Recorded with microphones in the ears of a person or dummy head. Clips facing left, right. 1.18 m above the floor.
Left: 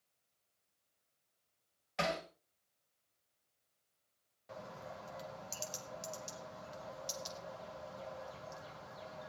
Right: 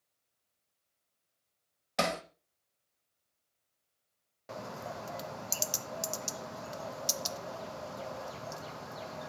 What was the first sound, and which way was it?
Hammering, 60° right (ahead or behind).